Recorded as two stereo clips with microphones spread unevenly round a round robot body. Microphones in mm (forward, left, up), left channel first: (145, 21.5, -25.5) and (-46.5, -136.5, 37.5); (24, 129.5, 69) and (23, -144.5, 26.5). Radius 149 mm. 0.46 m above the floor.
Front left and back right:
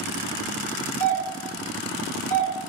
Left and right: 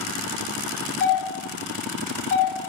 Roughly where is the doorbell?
Ahead left.